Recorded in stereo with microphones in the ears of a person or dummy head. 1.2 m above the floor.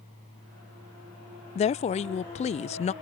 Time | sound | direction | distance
1.6 | a woman speaking | 30° left (ahead or behind) | ?